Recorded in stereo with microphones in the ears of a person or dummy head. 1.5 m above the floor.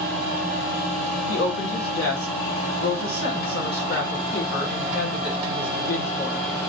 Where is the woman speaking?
65° left (ahead or behind), 1.5 m.